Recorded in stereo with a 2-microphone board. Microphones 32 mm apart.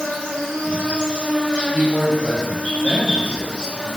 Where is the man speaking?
10° right (ahead or behind), 0.8 m.